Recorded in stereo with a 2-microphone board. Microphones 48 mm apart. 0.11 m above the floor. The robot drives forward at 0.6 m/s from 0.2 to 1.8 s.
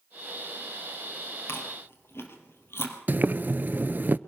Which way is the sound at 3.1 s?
40° right (ahead or behind).